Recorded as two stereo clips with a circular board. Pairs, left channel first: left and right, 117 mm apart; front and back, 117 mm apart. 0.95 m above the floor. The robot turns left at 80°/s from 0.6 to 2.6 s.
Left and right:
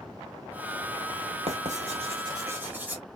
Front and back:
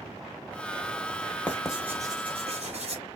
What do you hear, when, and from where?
1.5 s writing: 75° right, 1.9 m; by 3.0 s 165° right, 1.9 m